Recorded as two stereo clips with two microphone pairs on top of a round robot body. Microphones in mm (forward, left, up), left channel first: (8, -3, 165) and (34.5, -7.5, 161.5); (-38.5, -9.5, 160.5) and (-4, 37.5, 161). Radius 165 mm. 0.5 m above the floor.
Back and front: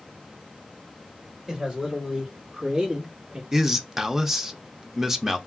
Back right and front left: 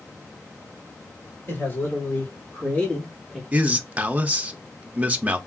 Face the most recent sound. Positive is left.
turn(degrees=25)